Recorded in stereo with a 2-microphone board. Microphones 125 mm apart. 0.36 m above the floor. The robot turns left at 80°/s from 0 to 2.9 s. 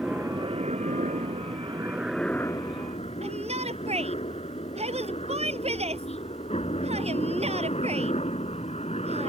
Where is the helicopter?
5° right (ahead or behind); by 9.3 s 60° left (ahead or behind).